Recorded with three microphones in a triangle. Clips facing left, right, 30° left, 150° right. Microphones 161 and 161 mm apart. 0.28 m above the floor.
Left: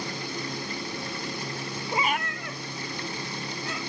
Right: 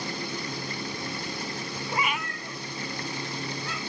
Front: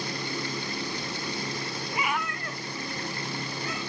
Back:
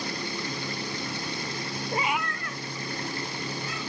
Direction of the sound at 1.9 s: 170° left.